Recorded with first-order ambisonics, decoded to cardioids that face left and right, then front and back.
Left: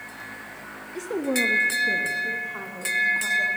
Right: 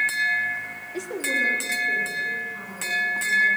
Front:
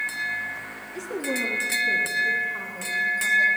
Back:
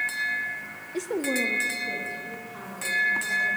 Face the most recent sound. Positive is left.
turn(degrees=75)